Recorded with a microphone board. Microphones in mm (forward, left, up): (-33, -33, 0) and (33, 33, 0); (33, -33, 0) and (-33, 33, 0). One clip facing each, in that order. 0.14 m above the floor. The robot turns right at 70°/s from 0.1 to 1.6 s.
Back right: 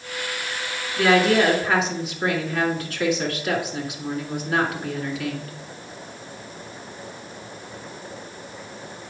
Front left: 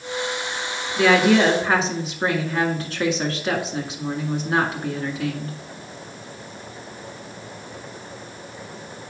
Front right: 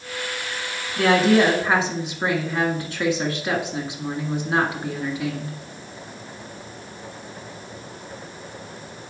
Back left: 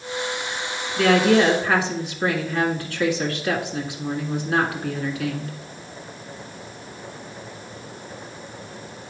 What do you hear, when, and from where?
1.0 s a woman speaking: 35° right, 2 m; by 5.5 s 10° left, 2 m